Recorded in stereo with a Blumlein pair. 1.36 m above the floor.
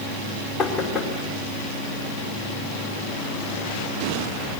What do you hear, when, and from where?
0.6 s knocking: 20° left, 3 m